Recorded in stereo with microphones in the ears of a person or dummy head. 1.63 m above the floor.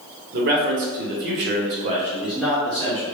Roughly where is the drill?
No drill in this recording.